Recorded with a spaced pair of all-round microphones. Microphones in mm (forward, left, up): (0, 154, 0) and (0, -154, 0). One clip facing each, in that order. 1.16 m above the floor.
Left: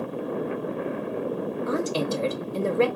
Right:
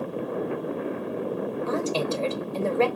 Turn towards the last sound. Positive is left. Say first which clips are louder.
# left 1 dB
turn(degrees=20)  # may be behind; listen again after turning